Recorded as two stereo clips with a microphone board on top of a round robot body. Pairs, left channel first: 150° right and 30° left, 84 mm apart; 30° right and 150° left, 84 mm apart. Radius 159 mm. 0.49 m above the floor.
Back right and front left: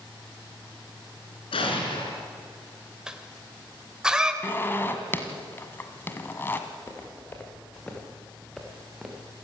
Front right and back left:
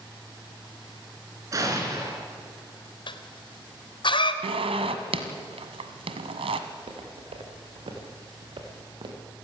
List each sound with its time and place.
1.5 s an explosion: 160° right, 4 m
3.1 s a cough: 50° right, 2.5 m
4.4 s a zipper: 145° left, 1.6 m
6.7 s footsteps: 155° left, 5.5 m; by 9.3 s 110° left, 5 m